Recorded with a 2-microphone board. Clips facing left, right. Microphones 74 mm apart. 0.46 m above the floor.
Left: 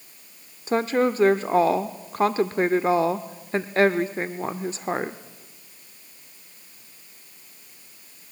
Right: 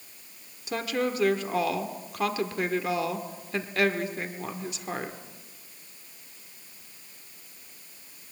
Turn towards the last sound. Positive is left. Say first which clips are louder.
# left 7 dB
turn(degrees=35)  # may be behind; listen again after turning